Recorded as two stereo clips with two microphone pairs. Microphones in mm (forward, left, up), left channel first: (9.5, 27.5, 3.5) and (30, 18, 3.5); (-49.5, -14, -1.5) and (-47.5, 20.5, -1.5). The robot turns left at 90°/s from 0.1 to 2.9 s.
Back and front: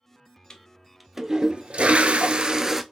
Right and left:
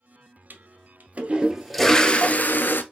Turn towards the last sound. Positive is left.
turn(degrees=-110)